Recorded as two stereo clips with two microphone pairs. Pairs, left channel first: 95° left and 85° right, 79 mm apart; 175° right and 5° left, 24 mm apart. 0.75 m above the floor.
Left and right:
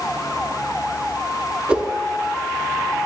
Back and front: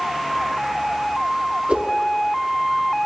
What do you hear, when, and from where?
1.7 s a whoosh: 15° right, 0.8 m